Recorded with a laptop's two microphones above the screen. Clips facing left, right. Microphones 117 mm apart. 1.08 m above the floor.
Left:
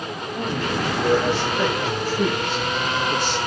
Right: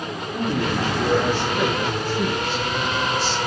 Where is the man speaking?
25° right (ahead or behind), 3 m; by 3.4 s 60° left (ahead or behind), 1.1 m.